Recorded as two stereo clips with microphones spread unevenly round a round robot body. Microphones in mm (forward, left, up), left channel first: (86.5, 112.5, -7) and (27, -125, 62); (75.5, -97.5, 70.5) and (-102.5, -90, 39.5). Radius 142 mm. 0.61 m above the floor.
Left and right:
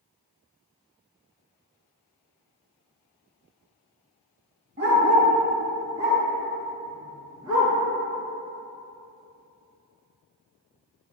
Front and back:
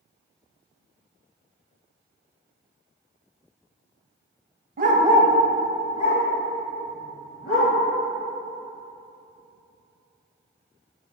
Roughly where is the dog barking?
Behind right.